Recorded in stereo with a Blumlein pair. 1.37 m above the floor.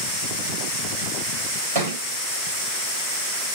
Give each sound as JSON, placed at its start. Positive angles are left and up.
{"t": 1.8, "sound": "a thud", "azimuth_deg": -70, "distance_m": 3.0}